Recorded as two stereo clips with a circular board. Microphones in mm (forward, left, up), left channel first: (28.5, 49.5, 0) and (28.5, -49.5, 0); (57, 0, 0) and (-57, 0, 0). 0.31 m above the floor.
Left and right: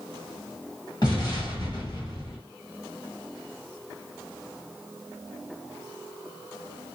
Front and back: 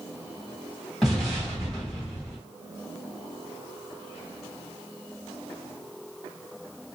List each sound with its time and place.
1.0 s an explosion: 90° left, 2 m